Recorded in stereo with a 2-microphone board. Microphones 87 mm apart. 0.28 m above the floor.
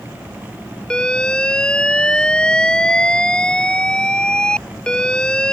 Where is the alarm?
10° left (ahead or behind).